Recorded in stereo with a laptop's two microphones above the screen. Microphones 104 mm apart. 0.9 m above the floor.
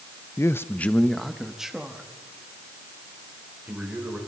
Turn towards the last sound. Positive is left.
turn(degrees=-10)  # may be behind; listen again after turning